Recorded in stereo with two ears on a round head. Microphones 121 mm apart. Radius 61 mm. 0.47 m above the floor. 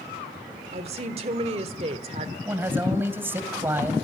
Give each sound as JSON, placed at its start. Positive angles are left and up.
{"t": 0.7, "sound": "a woman speaking", "side_deg": -45, "distance_m": 1.4}
{"t": 2.5, "sound": "a man speaking", "side_deg": -15, "distance_m": 2.5}